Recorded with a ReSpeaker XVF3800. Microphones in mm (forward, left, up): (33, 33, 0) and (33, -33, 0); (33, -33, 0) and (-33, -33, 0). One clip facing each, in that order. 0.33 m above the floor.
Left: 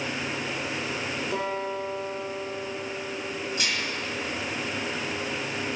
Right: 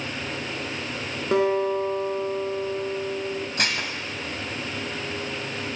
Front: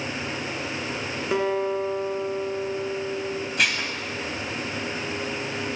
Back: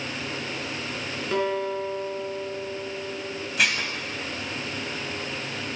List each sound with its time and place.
1.3 s a guitar: 70° right, 2.5 m
3.6 s dishes clattering: 90° right, 1.4 m